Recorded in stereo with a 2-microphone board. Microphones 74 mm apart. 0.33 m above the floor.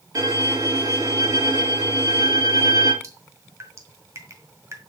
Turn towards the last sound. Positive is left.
turn(degrees=-40)  # may be behind; listen again after turning